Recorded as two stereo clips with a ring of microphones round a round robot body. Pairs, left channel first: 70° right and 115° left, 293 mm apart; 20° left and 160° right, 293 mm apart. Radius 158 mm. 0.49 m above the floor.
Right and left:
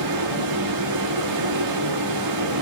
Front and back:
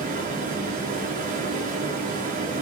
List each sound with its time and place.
0.0 s running water: 140° left, 5.5 m